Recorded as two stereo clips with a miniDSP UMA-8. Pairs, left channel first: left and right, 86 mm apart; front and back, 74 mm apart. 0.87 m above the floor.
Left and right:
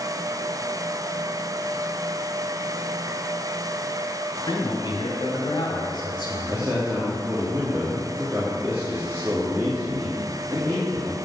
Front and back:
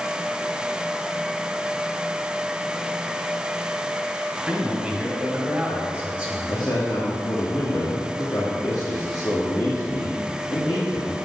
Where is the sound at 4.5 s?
100° left, 2.5 m.